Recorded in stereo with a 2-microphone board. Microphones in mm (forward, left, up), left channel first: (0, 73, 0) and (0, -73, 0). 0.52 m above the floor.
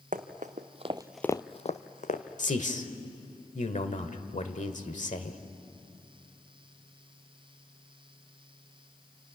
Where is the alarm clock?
I don't hear an alarm clock.